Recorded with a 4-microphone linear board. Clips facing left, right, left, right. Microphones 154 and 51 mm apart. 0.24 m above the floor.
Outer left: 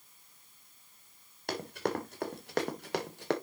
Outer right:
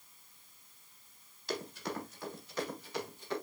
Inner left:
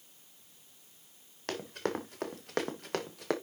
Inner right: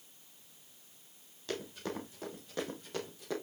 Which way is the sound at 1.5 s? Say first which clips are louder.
Outer left 5 dB, inner left 4 dB; 65° left (ahead or behind).